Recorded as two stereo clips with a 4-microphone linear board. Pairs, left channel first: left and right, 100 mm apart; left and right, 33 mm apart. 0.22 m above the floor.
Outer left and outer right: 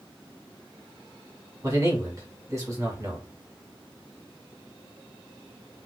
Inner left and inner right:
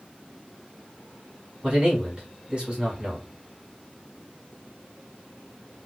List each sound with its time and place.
1.6 s a man speaking: 30° right (ahead or behind), 1.6 m